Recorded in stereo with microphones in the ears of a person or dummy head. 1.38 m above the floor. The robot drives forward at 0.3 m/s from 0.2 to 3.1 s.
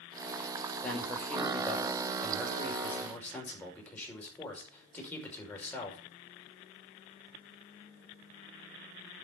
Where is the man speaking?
10° left (ahead or behind), 6 m; by 6.0 s 15° left (ahead or behind), 5.5 m.